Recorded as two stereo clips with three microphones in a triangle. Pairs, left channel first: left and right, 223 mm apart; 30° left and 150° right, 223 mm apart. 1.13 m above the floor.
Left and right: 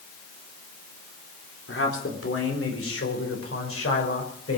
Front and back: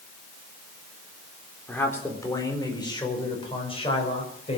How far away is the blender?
No blender in this recording.